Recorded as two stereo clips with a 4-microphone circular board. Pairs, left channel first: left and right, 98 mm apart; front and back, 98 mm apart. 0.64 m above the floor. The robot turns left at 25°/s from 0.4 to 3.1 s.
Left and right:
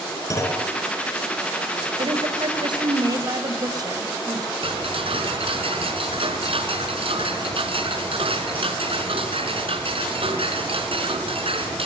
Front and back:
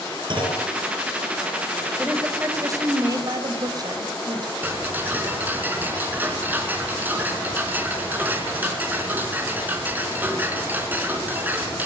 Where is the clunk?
145° left, 4.5 m; by 0.7 s 140° left, 4.5 m.